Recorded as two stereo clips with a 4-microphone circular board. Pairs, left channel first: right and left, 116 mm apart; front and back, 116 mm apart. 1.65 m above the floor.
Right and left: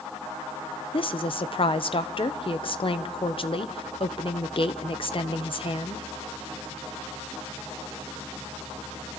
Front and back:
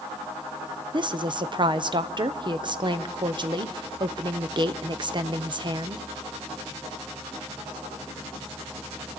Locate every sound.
0.9 s a woman speaking: 130° right, 0.8 m